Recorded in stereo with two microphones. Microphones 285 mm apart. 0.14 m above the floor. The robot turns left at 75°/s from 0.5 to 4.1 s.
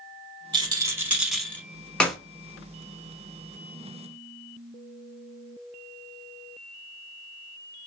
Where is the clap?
5° left (ahead or behind), 0.8 m; by 2.2 s centre (ahead or behind), 0.8 m.